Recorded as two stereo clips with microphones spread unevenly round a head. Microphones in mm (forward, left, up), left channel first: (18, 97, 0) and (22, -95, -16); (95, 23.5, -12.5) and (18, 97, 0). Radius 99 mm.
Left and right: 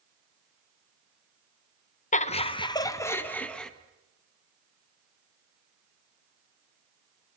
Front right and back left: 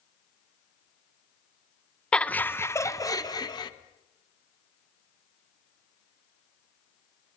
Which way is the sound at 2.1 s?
35° left.